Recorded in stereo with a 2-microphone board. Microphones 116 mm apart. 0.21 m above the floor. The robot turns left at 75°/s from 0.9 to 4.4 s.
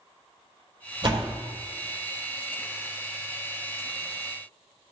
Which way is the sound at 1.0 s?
45° right (ahead or behind).